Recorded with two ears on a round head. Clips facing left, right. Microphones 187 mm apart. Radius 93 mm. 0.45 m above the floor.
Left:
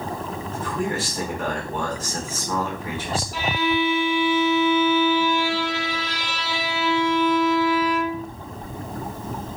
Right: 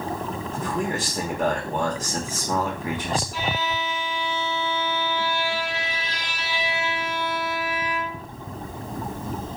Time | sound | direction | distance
0.5 | a man speaking | 15° right (ahead or behind) | 0.9 m
3.3 | a violin | 55° left (ahead or behind) | 0.6 m